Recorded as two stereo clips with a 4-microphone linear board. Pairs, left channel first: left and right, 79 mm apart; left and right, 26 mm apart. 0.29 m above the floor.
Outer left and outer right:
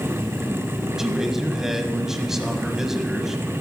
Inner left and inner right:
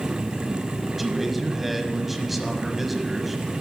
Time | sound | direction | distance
1.0 | a man speaking | 5° right (ahead or behind) | 1.9 m